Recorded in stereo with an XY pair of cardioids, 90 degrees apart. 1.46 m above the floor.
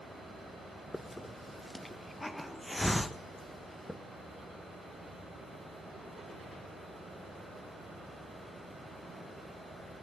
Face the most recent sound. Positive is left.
turn(degrees=15)